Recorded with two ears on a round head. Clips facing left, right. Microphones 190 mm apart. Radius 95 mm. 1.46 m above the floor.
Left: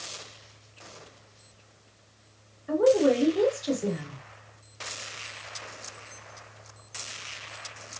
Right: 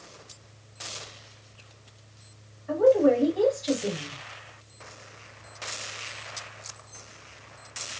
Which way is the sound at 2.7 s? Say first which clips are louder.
Right 1 dB; 40° left (ahead or behind).